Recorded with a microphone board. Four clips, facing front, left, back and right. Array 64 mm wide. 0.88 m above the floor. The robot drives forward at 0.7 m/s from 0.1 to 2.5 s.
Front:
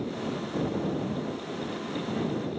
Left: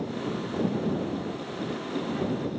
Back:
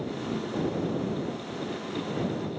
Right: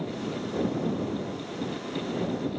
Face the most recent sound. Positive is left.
No sound to turn to.